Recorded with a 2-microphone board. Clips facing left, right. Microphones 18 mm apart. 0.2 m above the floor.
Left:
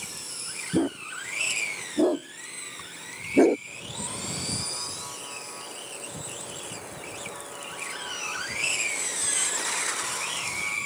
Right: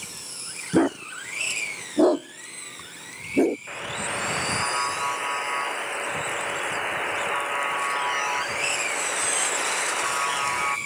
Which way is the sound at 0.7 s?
50° right (ahead or behind).